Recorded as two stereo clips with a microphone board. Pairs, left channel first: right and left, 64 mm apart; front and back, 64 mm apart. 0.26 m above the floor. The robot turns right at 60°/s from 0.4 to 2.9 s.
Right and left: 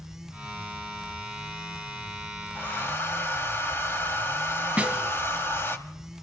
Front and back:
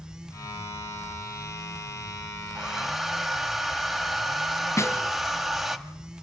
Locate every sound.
2.5 s a hair dryer: 110° right, 1.2 m; by 5.8 s 90° right, 1.2 m
4.8 s a snare drum: 25° left, 2.5 m